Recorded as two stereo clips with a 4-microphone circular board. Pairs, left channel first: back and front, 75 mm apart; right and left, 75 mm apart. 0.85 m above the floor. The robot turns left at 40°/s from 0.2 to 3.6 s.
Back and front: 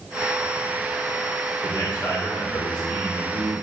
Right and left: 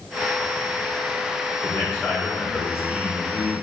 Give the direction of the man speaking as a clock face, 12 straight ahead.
5 o'clock.